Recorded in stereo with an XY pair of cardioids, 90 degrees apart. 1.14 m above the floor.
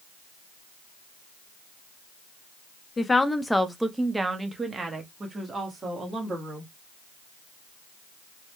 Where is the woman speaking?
35° left, 0.7 m; by 6.7 s 50° right, 2 m.